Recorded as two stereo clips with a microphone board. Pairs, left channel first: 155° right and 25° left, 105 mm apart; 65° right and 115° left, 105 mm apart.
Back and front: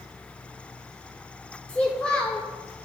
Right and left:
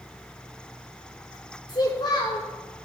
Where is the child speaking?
85° right, 0.7 m.